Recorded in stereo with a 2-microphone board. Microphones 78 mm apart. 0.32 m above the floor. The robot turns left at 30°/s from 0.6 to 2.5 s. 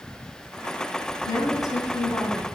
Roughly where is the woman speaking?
Ahead left.